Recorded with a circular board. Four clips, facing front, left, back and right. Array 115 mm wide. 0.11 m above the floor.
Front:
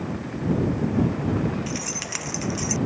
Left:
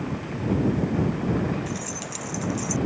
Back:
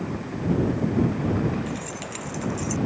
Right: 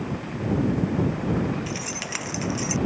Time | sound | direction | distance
1.7 | keys jangling | 55° right | ?